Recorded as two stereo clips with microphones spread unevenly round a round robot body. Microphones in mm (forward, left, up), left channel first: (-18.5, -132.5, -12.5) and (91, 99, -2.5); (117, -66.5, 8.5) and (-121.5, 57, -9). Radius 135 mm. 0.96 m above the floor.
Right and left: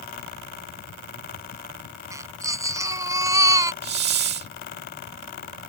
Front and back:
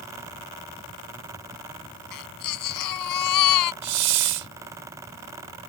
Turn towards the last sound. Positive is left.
turn(degrees=120)